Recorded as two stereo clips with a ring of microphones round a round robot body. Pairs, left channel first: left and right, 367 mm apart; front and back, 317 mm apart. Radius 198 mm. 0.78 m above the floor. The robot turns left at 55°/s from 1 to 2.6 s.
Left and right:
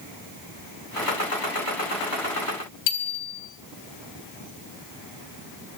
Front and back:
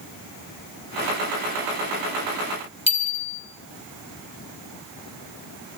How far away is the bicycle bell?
About 3.5 m.